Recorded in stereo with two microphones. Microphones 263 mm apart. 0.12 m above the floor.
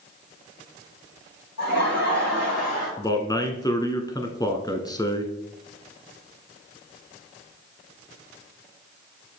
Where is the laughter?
70° left (ahead or behind), 4.5 m; by 2.9 s 65° left (ahead or behind), 3.5 m.